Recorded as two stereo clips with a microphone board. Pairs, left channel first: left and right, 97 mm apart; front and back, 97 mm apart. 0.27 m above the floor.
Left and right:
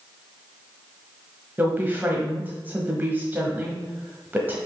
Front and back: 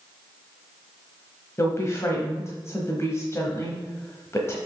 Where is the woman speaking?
35° right, 1.1 m.